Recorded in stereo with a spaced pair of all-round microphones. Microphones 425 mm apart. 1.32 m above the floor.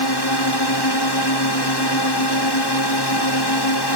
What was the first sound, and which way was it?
A drone, 70° left (ahead or behind).